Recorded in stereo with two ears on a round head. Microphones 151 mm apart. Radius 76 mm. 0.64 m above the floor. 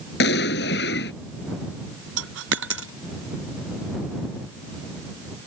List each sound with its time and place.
0.2 s an explosion: 60° left (ahead or behind)
2.2 s a dropped coin: 80° right